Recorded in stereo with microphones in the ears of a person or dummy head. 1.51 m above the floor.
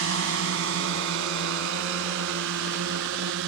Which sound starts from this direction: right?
A drone, at 0.0 s.